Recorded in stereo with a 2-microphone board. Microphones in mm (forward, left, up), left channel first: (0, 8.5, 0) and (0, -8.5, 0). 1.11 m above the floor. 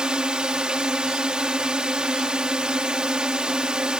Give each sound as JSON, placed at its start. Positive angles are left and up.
{"t": 0.0, "sound": "a drone", "side_deg": -55}